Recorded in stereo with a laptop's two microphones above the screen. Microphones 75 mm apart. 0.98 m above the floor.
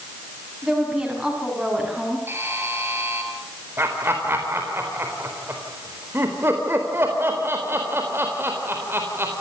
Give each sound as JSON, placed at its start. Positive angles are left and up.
{"t": 0.6, "sound": "a woman speaking", "side_deg": -5, "distance_m": 7.5}
{"t": 2.3, "sound": "a buzzer", "side_deg": -30, "distance_m": 3.5}
{"t": 3.8, "sound": "laughter", "side_deg": -35, "distance_m": 4.0}